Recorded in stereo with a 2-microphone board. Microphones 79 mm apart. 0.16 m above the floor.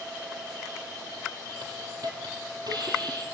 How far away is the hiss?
About 4 m.